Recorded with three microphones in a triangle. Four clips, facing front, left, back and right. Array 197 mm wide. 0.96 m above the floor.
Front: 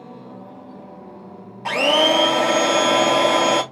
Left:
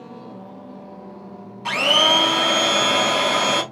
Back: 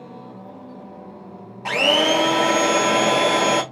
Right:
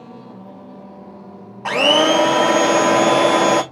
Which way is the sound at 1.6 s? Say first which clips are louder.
Right 5 dB, front 2 dB; 95° right.